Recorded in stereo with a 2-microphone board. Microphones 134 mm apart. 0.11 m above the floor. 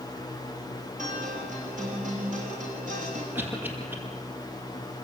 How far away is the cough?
About 5 m.